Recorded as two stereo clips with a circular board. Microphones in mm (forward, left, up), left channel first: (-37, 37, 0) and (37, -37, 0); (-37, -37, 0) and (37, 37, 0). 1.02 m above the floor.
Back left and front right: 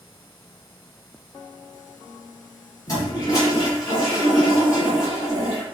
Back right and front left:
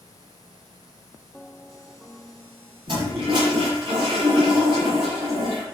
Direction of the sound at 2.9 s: 80° left.